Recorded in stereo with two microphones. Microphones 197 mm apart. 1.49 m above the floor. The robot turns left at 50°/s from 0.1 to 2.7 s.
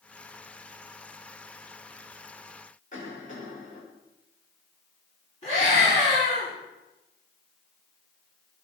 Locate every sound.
2.9 s a cough: 40° left (ahead or behind), 5 m
5.4 s a scream: 35° left (ahead or behind), 3.5 m